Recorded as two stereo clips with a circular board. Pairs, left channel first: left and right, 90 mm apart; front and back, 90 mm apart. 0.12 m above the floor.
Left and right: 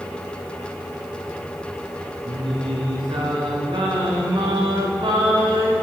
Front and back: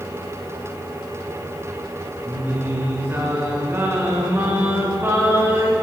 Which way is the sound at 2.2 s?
115° right.